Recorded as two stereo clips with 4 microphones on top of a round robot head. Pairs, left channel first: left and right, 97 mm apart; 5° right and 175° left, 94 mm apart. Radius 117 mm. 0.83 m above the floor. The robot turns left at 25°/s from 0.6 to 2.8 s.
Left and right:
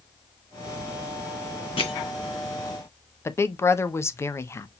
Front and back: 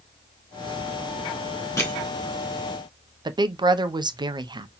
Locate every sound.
1.8 s crushing: 55° left, 2.5 m; by 1.9 s 50° left, 2.5 m
3.2 s a woman speaking: 150° left, 0.7 m